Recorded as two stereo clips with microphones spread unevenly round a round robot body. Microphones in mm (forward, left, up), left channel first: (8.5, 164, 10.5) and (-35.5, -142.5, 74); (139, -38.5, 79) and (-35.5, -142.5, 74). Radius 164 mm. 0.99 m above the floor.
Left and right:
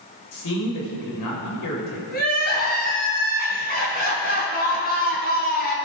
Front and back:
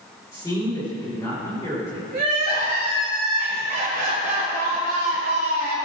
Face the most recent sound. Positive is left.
turn(degrees=150)